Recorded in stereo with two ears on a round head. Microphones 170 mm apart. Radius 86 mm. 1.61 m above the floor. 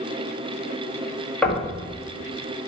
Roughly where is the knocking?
Centre.